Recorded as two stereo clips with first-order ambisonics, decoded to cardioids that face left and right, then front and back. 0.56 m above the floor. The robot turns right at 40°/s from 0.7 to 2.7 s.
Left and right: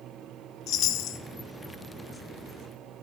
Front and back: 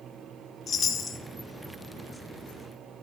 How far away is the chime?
About 1.0 m.